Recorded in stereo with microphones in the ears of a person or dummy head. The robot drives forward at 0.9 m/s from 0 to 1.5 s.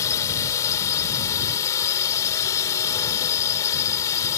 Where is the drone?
15° left (ahead or behind).